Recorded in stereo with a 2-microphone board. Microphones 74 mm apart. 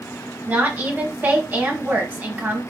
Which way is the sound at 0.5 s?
25° right (ahead or behind).